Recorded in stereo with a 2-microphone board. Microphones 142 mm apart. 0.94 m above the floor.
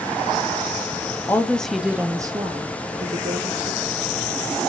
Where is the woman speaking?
15° left (ahead or behind), 0.7 m; by 4.2 s 55° right (ahead or behind), 1.2 m.